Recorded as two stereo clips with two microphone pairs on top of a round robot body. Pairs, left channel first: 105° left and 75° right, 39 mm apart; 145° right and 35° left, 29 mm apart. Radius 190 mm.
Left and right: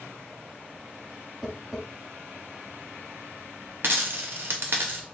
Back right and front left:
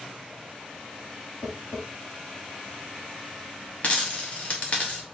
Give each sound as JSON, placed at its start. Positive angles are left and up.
{"t": 1.4, "sound": "tapping", "azimuth_deg": -160, "distance_m": 0.8}
{"t": 3.8, "sound": "a dropped coin", "azimuth_deg": -100, "distance_m": 0.6}